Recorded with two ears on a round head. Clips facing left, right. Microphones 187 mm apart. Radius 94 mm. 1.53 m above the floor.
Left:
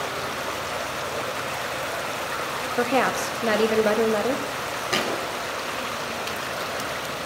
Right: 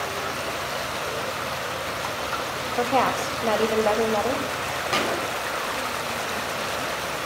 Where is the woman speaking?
25° left (ahead or behind), 0.8 m.